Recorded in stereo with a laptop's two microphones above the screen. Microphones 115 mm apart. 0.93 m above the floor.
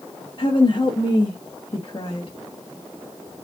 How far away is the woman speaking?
About 1.1 m.